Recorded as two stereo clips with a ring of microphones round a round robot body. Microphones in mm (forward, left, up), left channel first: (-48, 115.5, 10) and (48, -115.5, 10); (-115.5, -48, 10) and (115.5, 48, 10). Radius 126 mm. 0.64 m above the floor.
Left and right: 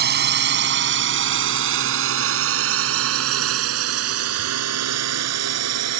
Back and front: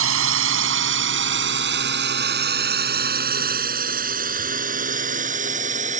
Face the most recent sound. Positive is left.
turn(degrees=-40)